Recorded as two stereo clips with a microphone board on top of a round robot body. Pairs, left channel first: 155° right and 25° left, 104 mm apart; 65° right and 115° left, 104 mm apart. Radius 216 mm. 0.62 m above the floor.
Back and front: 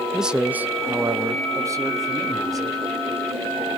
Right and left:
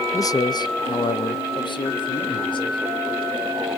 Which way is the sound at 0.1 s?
60° right.